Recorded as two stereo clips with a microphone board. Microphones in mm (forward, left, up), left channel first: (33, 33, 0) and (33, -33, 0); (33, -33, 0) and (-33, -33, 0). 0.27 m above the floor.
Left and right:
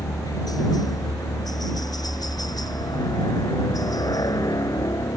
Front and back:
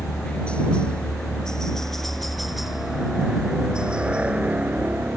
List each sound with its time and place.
0.0 s a helicopter: 70° left; by 5.2 s 115° left